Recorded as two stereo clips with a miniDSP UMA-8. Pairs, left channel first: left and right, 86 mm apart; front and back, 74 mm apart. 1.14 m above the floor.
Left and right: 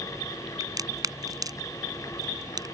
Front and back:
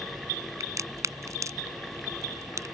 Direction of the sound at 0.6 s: 135° right.